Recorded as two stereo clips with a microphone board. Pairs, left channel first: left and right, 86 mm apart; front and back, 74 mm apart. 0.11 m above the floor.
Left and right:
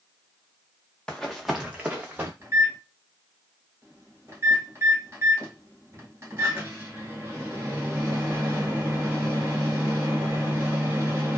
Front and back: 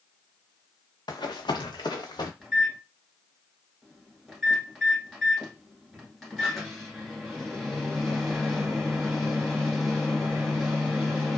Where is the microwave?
90° right, 1.3 m.